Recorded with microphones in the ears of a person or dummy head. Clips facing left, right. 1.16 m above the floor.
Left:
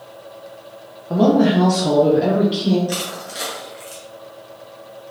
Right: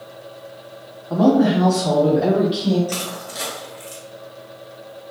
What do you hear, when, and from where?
1.1 s a woman speaking: 40° left (ahead or behind), 0.8 m; by 2.8 s 10° left (ahead or behind), 1.4 m
2.9 s crushing: 10° left (ahead or behind), 0.9 m